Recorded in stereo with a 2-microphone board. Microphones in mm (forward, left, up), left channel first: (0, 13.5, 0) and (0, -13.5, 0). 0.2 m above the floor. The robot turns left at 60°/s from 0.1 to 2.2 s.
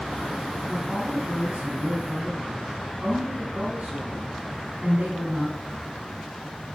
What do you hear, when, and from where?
0.7 s a woman speaking: 10° right, 7.5 m; by 6.0 s 100° right, 7.5 m